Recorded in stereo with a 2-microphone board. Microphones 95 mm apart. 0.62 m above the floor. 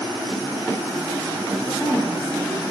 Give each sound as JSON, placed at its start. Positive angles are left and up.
{"t": 1.6, "sound": "a woman speaking", "side_deg": 15, "distance_m": 3.5}